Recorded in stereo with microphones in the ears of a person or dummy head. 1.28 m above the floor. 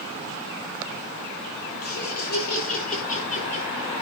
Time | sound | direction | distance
1.8 | laughter | 55° left (ahead or behind) | 4.5 m